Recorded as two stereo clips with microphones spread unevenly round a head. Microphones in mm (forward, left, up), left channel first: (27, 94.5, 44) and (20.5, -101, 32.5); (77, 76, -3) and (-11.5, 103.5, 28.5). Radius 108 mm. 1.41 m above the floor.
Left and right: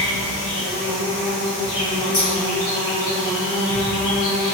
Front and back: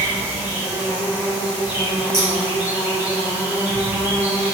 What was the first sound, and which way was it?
An insect, 100° left.